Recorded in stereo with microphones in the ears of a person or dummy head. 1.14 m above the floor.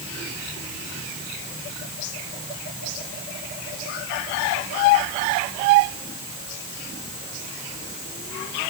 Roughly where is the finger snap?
No finger snap in this recording.